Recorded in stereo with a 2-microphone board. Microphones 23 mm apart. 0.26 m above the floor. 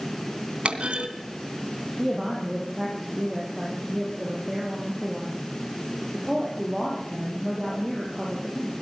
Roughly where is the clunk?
Right.